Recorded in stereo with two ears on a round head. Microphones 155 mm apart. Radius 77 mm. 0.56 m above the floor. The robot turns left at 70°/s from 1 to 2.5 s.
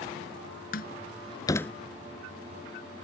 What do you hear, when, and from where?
0.7 s a door slam: 55° left (ahead or behind); by 1.7 s 5° left (ahead or behind)